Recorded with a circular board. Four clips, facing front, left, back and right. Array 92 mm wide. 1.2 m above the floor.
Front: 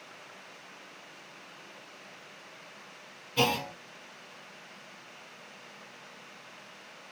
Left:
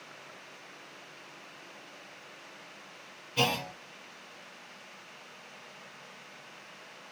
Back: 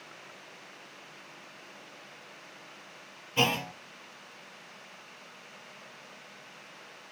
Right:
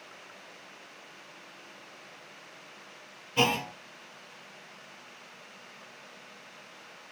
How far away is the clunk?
About 0.7 m.